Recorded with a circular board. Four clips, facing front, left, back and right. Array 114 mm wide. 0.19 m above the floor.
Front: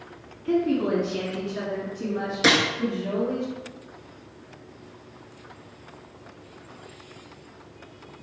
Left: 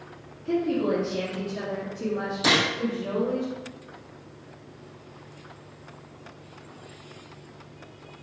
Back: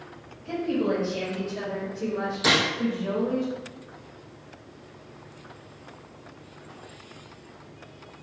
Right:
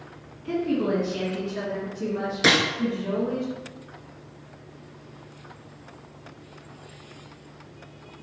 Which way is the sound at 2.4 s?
50° right.